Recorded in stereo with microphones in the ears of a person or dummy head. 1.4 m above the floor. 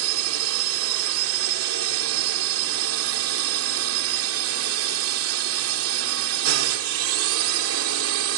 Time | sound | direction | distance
0.0 | a drone | 80° right | ?